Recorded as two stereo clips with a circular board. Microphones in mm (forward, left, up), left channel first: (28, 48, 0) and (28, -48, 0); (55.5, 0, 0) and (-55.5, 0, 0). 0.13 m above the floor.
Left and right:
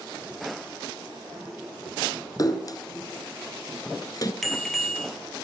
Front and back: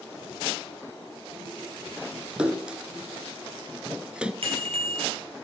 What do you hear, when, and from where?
2.4 s a splash: 105° left, 1.1 m
4.4 s a bicycle bell: 175° left, 2.5 m